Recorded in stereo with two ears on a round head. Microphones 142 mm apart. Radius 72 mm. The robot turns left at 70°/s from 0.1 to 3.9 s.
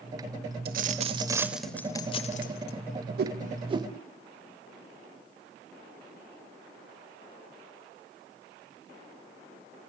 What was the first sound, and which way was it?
A dropped coin, 110° right.